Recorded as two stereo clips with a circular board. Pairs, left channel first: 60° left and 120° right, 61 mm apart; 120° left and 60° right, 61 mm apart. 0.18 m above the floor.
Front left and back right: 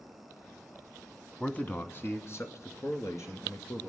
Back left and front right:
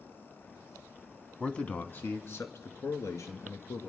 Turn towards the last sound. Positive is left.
turn(degrees=85)